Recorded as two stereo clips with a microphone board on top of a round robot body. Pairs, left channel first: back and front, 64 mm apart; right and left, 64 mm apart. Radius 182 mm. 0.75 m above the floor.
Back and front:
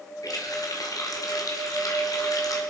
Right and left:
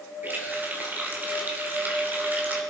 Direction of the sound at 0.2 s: 150° left.